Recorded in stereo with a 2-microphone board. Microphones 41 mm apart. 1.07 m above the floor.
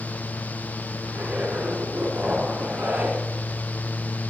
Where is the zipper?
60° right (ahead or behind), 5.5 m.